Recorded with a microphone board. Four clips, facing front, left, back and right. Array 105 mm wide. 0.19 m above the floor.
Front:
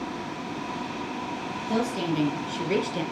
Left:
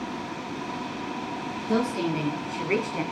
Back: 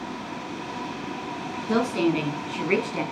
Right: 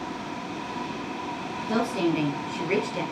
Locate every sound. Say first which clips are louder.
1.7 s a woman speaking: right 1 dB, back 5 dB; 170° right, 2 m; by 3.0 s 155° left, 1.7 m